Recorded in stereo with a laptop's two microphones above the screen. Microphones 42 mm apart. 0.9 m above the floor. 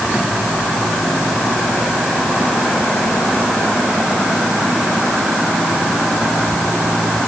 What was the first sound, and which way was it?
Only background noise.